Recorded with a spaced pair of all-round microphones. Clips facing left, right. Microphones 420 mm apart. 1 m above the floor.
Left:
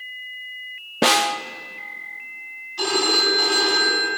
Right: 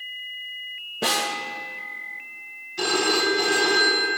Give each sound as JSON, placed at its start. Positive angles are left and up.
{"t": 1.0, "sound": "a snare drum", "side_deg": 80, "distance_m": 0.7}
{"t": 2.8, "sound": "a phone ringing", "side_deg": -40, "distance_m": 4.5}